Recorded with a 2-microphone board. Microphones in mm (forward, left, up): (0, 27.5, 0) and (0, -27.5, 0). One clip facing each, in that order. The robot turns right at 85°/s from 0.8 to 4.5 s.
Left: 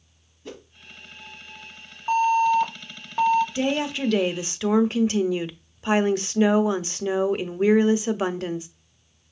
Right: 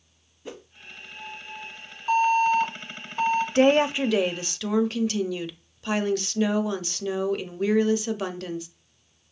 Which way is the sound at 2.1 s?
20° left.